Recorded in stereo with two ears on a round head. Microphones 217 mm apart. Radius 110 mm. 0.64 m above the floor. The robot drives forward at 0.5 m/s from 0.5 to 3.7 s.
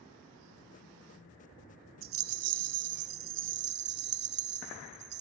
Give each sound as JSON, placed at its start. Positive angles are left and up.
{"t": 2.0, "sound": "a rattle", "side_deg": -55, "distance_m": 0.7}